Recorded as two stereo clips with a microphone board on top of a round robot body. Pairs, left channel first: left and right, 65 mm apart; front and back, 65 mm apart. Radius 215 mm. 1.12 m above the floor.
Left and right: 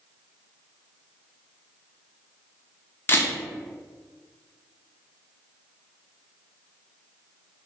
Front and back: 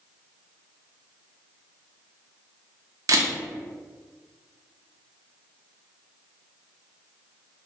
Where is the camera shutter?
145° left, 0.5 m.